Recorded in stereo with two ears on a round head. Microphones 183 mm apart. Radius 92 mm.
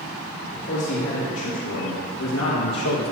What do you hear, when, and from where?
0.5 s a man speaking: 60° left (ahead or behind), 2.5 m; by 3.1 s 80° left, 1.1 m